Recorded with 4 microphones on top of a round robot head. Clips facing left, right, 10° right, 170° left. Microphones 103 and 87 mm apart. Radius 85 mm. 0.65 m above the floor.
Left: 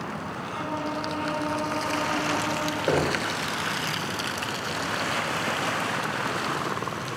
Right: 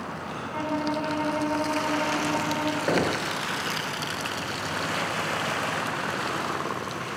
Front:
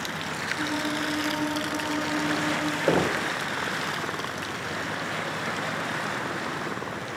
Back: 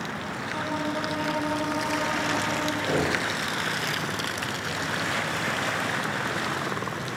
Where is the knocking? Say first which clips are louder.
Left 2 dB, front 4 dB; 10° left, 1.9 m.